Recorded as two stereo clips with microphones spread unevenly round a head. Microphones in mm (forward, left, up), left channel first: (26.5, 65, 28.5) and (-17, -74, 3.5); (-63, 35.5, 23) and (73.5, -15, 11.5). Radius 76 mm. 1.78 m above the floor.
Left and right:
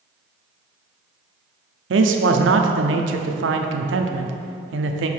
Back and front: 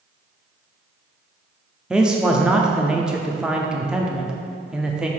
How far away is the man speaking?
About 0.7 m.